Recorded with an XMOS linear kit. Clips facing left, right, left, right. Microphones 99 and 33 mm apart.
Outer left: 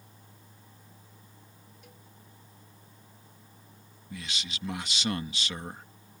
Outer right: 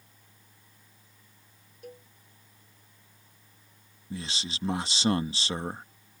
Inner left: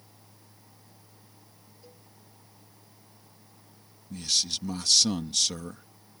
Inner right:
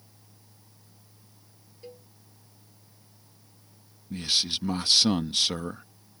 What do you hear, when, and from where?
1.8 s a cowbell: 45° right (ahead or behind)
4.1 s a man speaking: 30° right (ahead or behind)